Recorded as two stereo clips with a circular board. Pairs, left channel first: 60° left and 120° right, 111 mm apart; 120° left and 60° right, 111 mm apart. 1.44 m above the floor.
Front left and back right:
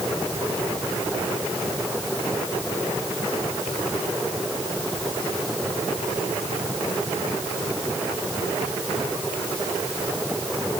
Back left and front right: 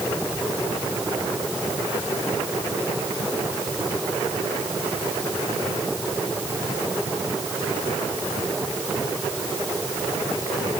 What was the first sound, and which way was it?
Only background noise.